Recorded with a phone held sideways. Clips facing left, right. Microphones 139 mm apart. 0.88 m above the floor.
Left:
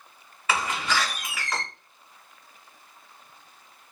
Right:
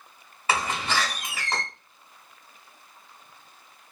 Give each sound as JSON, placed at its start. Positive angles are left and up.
{"t": 0.5, "sound": "a door slam", "side_deg": -30, "distance_m": 2.0}